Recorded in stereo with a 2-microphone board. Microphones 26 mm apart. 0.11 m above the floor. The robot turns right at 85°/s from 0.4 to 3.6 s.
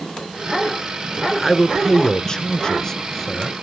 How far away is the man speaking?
About 1.1 m.